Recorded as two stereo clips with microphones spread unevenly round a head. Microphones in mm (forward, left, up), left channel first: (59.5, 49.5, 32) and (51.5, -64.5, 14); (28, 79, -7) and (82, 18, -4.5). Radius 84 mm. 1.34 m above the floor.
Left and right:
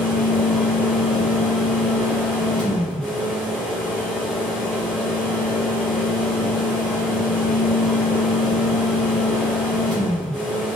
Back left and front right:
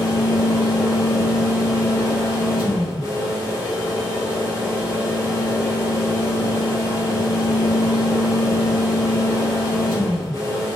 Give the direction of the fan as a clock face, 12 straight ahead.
6 o'clock.